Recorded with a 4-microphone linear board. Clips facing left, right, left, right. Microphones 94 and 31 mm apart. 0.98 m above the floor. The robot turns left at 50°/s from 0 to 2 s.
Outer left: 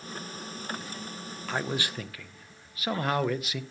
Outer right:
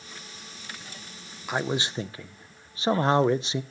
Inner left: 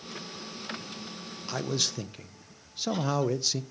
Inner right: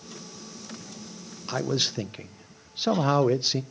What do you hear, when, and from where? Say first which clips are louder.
1.5 s a man speaking: outer right 3 dB, inner right 4 dB; 10° right (ahead or behind), 0.6 m; by 3.6 s 25° right (ahead or behind), 0.6 m